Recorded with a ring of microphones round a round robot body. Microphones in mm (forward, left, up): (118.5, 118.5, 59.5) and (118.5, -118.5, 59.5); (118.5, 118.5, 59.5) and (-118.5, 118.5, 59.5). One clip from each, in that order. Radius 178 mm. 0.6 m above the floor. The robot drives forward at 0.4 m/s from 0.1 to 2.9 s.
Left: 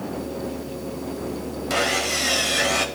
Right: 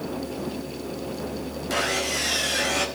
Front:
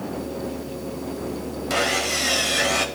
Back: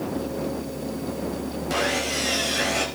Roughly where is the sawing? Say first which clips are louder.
Left 3 dB, front 3 dB; ahead left.